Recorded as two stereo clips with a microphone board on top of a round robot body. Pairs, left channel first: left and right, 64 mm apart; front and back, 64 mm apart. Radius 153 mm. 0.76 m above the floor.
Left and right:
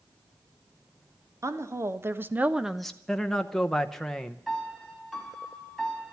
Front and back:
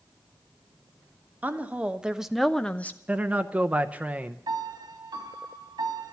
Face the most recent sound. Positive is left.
turn(degrees=180)